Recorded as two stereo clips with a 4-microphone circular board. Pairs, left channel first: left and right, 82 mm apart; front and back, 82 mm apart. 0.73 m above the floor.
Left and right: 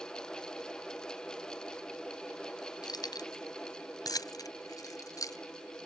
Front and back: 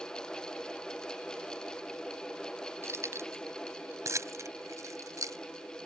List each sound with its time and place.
2.8 s keys jangling: 125° left; by 5.4 s 135° left